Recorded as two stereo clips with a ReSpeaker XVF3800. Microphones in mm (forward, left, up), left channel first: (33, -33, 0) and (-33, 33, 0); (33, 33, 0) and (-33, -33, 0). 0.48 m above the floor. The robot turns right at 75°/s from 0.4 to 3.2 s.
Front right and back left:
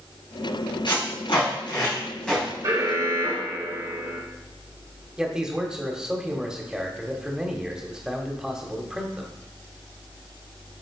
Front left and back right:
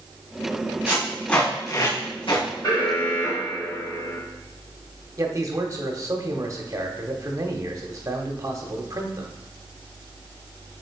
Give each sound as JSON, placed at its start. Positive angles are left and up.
{"t": 0.9, "sound": "tape being pulled", "azimuth_deg": -70, "distance_m": 4.0}
{"t": 2.6, "sound": "an alarm", "azimuth_deg": 80, "distance_m": 3.5}
{"t": 5.2, "sound": "a man speaking", "azimuth_deg": -150, "distance_m": 1.4}